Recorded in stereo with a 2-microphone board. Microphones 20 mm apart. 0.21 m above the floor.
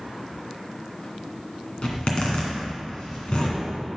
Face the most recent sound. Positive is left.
turn(degrees=55)  # may be behind; listen again after turning